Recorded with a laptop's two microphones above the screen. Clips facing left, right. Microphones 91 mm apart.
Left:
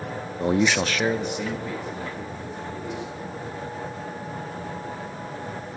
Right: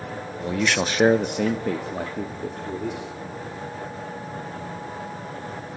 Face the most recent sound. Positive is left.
turn(degrees=-80)